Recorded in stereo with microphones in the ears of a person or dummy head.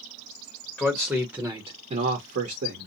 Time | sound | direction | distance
0.8 | a man speaking | 5° left (ahead or behind) | 0.9 m